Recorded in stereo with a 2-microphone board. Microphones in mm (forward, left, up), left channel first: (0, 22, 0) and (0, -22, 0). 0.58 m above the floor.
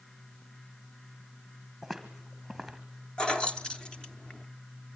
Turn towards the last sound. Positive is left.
turn(degrees=20)  # may be behind; listen again after turning